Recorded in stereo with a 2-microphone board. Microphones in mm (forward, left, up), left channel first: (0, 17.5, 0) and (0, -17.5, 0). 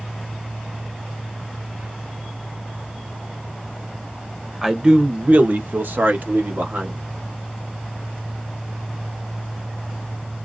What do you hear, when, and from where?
4.6 s a man speaking: 15° right (ahead or behind), 0.6 m; by 7.0 s 70° right (ahead or behind), 1.5 m